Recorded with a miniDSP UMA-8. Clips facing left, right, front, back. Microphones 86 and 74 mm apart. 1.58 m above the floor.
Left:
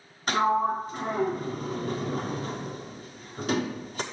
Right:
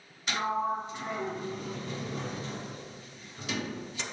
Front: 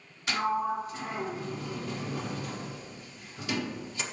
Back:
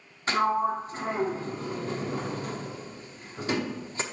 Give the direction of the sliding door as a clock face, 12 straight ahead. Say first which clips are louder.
Left 6 dB, back 4 dB; 8 o'clock.